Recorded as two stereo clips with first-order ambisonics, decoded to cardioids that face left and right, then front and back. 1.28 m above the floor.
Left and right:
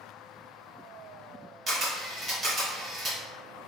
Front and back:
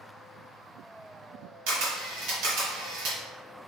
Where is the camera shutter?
155° right, 1.5 m.